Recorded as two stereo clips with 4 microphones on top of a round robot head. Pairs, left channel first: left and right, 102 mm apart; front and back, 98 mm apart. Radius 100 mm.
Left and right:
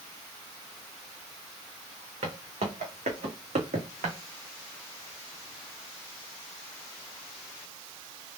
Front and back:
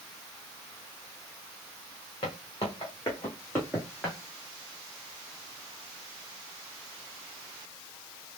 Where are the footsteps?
60° right, 2.5 m; by 4.2 s 90° right, 1.9 m.